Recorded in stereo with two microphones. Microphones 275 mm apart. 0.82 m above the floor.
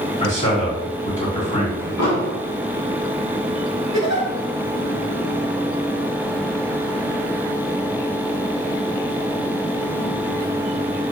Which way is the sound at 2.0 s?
70° left (ahead or behind).